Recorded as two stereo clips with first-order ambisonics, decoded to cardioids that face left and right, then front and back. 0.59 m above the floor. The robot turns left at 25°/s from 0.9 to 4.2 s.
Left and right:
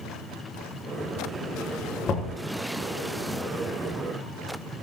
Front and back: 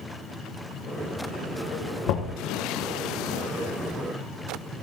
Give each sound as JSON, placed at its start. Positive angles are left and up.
{"t": 2.1, "sound": "knocking", "azimuth_deg": 30, "distance_m": 1.3}